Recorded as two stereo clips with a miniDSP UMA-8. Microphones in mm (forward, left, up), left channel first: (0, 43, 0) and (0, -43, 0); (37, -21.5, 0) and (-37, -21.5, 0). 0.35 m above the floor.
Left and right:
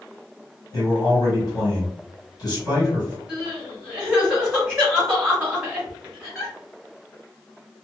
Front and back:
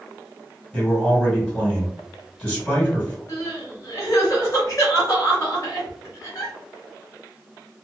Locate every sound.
0.7 s a man speaking: 75° left, 1.7 m
3.3 s crying: 20° right, 1.3 m